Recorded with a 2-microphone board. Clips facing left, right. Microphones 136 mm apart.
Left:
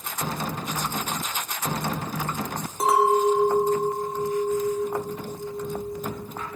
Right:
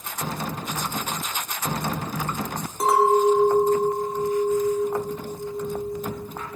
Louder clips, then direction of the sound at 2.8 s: Right 2 dB; 5° left (ahead or behind).